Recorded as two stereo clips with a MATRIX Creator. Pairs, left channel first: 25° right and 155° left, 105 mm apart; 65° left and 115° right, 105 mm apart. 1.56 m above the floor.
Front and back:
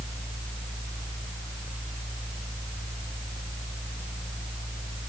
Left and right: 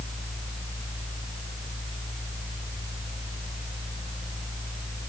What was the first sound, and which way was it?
Only background noise.